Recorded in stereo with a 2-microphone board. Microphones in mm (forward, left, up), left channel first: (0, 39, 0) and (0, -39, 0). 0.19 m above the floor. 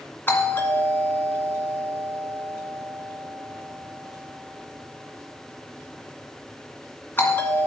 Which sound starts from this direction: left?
A doorbell, at 0.3 s.